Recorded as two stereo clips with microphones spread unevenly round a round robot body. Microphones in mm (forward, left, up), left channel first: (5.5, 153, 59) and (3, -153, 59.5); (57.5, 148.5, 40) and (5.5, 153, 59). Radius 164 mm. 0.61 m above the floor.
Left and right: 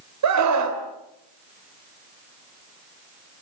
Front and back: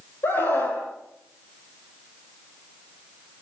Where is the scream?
60° right, 3 m.